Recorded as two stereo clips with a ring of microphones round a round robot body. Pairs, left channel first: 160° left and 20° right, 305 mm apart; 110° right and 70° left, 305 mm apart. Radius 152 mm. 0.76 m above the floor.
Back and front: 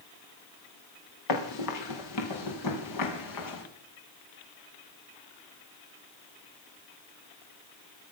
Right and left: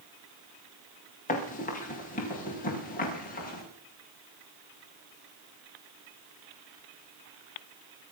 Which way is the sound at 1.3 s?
Straight behind.